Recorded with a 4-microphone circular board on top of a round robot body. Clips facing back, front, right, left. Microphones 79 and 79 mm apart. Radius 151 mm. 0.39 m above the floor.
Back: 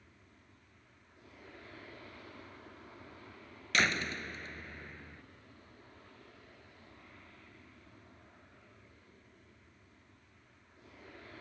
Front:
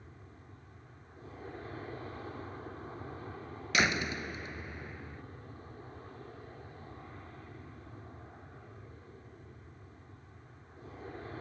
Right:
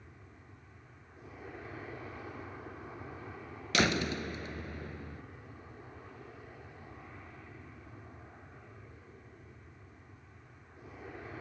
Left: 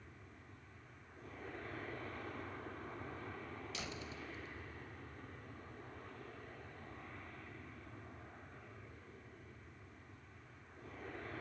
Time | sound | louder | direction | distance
0.0 | an aircraft | front 8 dB, right 2 dB | 15° right | ?
3.7 | a door slam | front 1 dB, right 23 dB | 80° right | ?